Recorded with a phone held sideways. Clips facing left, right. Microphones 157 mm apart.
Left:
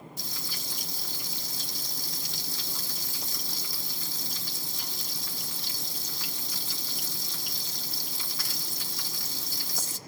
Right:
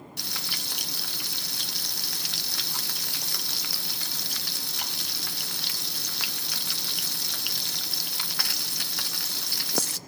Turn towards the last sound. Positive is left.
turn(degrees=-70)  # may be behind; listen again after turning